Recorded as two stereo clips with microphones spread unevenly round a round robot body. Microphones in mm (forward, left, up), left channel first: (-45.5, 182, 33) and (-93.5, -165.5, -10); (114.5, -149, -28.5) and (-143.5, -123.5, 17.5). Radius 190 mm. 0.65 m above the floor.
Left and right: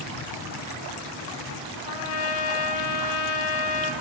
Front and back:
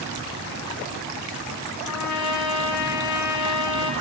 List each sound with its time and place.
1.9 s a trumpet: 30° left, 0.9 m